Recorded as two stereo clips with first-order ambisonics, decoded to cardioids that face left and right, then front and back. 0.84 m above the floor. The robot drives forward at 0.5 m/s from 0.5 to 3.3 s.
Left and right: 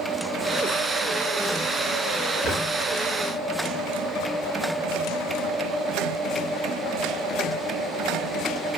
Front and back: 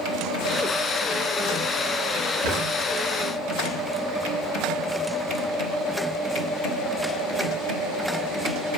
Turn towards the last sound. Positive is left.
turn(degrees=175)